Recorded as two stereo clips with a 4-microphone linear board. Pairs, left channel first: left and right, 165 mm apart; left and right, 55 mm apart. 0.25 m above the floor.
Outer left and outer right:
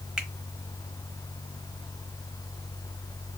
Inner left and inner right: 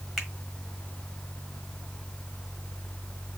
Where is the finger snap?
5° right (ahead or behind), 1.2 m.